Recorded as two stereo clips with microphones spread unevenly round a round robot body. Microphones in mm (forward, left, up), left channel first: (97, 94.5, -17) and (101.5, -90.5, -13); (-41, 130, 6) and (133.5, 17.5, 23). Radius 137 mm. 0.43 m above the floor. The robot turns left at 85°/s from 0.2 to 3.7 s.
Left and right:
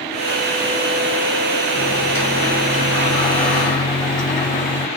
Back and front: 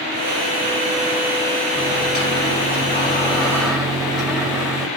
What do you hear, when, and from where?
1.8 s a microwave: 135° right, 1.8 m; by 4.9 s 55° left, 1.8 m